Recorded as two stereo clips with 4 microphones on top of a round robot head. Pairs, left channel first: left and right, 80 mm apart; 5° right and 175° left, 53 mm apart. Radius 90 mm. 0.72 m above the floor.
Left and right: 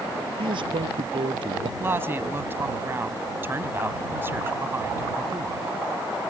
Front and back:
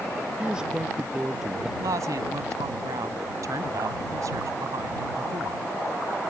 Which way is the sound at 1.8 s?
155° right.